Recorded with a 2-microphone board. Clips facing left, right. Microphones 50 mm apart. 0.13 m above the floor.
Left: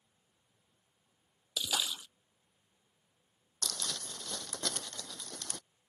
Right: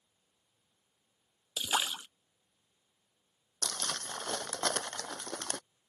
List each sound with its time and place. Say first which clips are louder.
1.6 s a splash: right 3 dB; 35° right (ahead or behind)
3.6 s crumpling: right 3 dB; 50° right (ahead or behind)